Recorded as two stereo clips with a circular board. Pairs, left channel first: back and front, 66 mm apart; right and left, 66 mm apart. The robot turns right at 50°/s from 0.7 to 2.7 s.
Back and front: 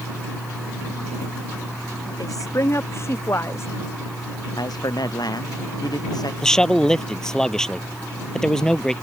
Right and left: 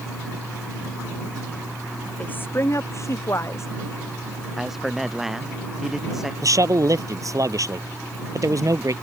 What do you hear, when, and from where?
2.2 s a woman speaking: 160° right; by 3.7 s 135° right
4.6 s a man speaking: 175° left
6.4 s a man speaking: 100° left